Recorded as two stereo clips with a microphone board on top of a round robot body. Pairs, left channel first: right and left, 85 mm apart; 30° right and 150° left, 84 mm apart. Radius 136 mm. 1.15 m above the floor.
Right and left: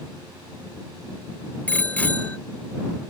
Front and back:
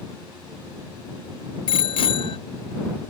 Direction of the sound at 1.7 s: 15° right.